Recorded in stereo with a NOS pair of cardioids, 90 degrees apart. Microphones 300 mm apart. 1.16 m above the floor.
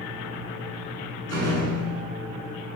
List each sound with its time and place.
1.3 s a door slam: 50° right, 8.5 m